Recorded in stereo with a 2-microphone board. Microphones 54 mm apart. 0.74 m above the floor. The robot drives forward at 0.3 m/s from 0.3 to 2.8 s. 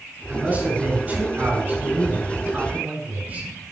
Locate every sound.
0.3 s a man speaking: 25° right (ahead or behind), 8.5 m